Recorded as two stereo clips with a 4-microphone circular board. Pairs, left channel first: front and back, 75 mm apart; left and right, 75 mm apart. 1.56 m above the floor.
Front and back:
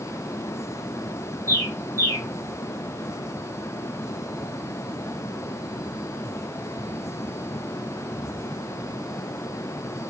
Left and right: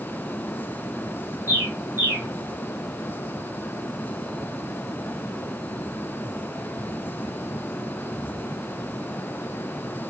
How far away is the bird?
About 2 m.